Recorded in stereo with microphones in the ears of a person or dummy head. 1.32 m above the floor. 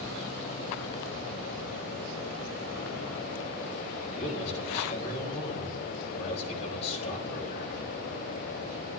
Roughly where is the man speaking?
Left.